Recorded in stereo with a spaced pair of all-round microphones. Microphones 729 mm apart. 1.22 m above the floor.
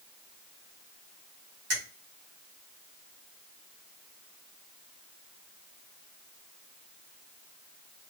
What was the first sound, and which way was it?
A finger snap, 75° right (ahead or behind).